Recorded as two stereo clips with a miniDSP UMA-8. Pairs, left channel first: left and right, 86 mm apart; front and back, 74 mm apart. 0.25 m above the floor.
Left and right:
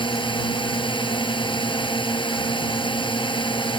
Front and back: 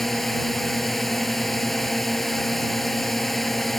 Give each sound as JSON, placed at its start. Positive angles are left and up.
{"t": 0.0, "sound": "a drone", "azimuth_deg": 90}